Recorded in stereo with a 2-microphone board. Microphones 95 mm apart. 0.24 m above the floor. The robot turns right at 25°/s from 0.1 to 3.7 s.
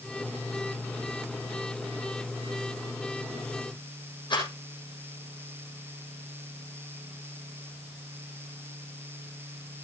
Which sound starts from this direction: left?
A rattle, at 4.3 s.